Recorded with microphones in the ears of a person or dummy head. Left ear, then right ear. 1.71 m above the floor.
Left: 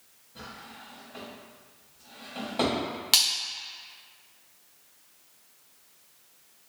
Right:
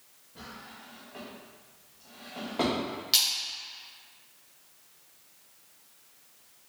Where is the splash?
35° left (ahead or behind), 1.2 m.